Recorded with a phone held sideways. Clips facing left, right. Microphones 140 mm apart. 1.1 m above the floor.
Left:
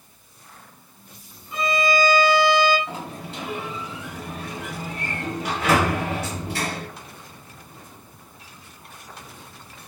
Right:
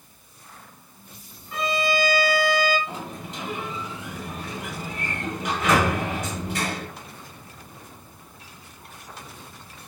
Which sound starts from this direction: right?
A violin, at 1.5 s.